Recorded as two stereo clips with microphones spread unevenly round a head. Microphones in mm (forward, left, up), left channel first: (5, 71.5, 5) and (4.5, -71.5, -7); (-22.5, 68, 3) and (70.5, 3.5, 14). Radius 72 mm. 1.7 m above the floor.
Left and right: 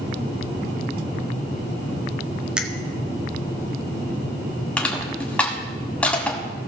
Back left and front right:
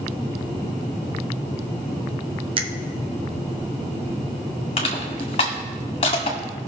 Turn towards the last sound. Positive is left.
turn(degrees=160)